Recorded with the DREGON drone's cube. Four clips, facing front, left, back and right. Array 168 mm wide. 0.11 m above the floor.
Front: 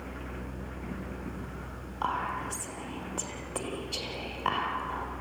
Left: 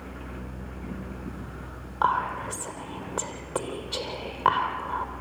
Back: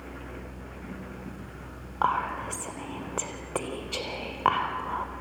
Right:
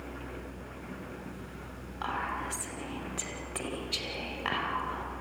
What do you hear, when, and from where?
2.0 s whispering: 145° left, 3.5 m